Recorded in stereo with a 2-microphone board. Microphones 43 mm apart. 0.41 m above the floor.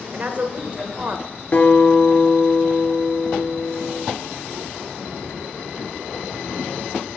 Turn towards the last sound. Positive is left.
turn(degrees=40)  # may be behind; listen again after turning